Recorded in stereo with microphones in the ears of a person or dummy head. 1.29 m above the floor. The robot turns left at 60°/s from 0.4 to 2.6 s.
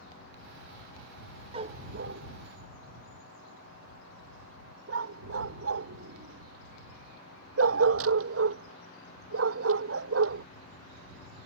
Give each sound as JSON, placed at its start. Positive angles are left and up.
{"t": 1.5, "sound": "a dog barking", "side_deg": -30}